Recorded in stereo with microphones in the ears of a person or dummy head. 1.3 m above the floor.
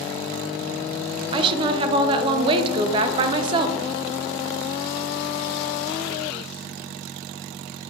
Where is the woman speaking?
25° right (ahead or behind), 0.5 m.